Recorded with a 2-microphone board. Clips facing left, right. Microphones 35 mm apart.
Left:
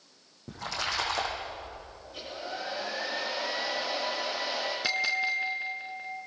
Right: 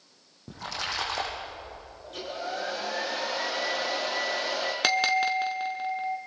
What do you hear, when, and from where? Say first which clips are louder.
0.5 s a splash: even; 5° right (ahead or behind), 8.5 m
2.0 s a hair dryer: right 5 dB; 75° right (ahead or behind), 6.5 m
4.8 s a bell: right 5 dB; 70° right (ahead or behind), 1.6 m